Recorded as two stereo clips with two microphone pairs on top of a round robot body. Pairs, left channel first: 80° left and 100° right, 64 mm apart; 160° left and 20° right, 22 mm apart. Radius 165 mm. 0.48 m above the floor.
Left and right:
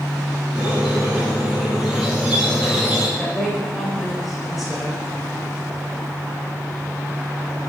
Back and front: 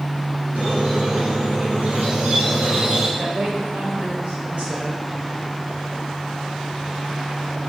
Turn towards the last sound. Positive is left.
turn(degrees=-10)